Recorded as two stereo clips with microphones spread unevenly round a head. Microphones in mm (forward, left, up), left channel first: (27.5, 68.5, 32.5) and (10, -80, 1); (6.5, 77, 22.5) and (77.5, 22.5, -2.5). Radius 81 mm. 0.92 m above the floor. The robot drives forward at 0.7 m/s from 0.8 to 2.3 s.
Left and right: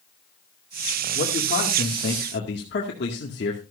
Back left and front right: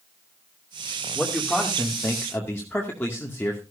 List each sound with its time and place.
1.1 s a man speaking: 50° left, 2.5 m; by 3.6 s 70° left, 2 m